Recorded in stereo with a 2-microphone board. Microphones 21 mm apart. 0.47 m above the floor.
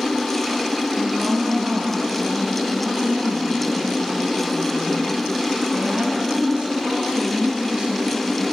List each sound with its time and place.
1.0 s a woman speaking: 75° right (ahead or behind), 5 m